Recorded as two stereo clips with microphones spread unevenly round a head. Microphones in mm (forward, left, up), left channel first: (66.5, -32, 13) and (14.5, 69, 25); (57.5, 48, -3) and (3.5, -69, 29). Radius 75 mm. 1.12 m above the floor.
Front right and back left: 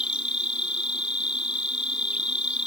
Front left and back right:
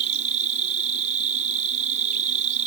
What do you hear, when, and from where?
0.0 s an insect: 160° right